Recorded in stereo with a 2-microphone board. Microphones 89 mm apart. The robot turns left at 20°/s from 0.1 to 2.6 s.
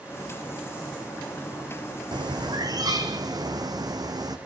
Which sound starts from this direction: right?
A bird, at 2.1 s.